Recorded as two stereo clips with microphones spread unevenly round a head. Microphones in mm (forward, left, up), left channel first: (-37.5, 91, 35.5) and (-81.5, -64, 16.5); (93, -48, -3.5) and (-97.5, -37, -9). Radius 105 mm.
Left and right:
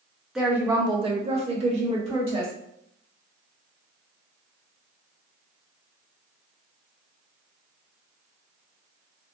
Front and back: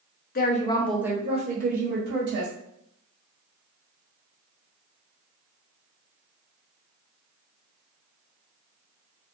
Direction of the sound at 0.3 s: 25° right.